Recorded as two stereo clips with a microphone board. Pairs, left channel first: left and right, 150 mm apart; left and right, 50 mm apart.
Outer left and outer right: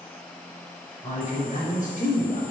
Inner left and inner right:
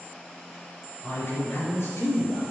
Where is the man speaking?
55° left (ahead or behind), 3.5 m.